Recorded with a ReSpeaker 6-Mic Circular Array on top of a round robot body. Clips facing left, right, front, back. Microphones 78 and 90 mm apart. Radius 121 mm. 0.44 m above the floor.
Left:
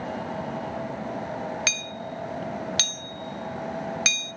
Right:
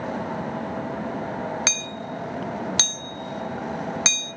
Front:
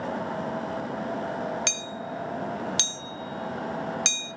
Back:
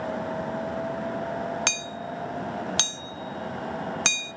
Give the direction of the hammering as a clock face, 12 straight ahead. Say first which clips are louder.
Right 2 dB, back 1 dB; 5 o'clock.